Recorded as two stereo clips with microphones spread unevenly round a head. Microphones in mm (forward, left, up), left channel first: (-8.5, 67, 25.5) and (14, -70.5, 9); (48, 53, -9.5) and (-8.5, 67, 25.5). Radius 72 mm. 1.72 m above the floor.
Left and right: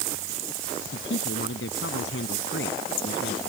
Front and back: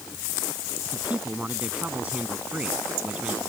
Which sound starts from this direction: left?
A man speaking, at 0.8 s.